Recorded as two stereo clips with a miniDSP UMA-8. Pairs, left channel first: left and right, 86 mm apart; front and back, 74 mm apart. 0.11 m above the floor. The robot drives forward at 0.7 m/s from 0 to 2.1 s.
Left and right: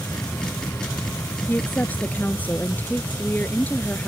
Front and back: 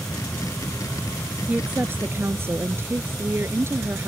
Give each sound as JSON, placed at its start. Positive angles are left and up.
{"t": 1.5, "sound": "a woman speaking", "azimuth_deg": 130}